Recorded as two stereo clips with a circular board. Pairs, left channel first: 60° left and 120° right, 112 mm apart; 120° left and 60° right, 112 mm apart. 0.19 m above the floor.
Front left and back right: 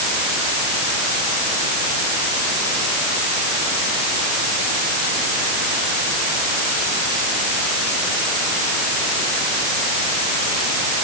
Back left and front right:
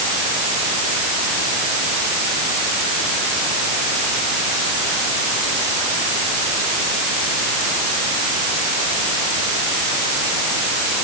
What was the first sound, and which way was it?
Only background noise.